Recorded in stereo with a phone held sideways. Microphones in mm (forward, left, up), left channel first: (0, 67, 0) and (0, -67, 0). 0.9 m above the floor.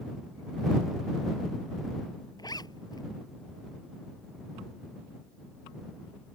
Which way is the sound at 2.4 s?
30° left (ahead or behind).